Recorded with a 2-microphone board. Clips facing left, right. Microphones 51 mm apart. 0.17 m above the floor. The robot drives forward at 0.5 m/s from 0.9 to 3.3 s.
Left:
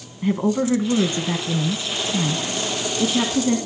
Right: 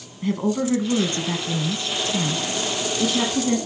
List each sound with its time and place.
0.2 s a woman speaking: 15° left (ahead or behind), 1.1 m